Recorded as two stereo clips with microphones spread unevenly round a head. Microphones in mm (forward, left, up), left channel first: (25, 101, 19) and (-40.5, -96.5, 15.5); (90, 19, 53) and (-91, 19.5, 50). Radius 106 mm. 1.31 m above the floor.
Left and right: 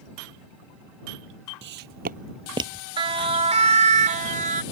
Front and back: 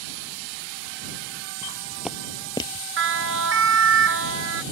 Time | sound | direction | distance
1.6 | footsteps | 110° right | ?
3.0 | a siren | 175° right | ?